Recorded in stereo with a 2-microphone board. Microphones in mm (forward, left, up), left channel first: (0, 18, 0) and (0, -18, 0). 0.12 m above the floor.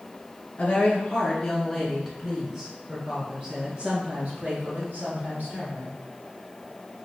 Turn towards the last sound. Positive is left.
turn(degrees=-60)  # may be behind; listen again after turning